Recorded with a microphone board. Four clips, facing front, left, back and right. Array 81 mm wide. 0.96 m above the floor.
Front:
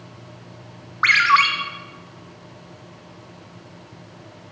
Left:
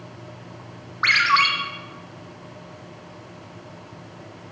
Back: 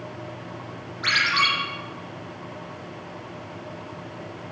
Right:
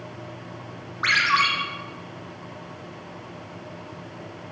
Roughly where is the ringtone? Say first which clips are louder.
Left 2 dB, front 8 dB; ahead left.